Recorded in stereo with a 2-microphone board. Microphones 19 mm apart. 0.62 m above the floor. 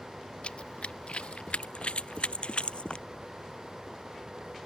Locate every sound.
0.4 s running footsteps: 70° left (ahead or behind); by 3.1 s 60° left (ahead or behind)